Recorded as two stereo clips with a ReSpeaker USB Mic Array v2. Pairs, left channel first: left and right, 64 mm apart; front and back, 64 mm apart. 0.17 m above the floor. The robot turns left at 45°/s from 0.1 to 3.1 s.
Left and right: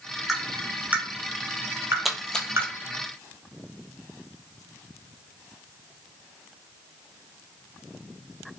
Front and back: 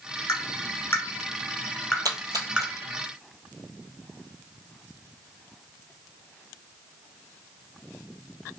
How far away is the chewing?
No chewing in this recording.